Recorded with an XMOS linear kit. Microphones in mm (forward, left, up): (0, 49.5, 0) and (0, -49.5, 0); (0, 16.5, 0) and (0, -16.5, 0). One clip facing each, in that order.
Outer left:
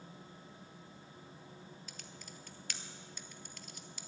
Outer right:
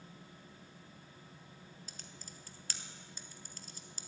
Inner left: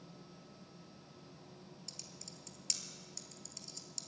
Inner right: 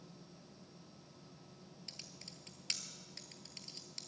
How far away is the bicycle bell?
No bicycle bell in this recording.